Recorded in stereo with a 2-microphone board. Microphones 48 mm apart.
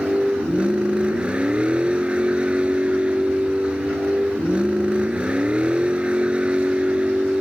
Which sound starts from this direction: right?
A vehicle, at 0.0 s.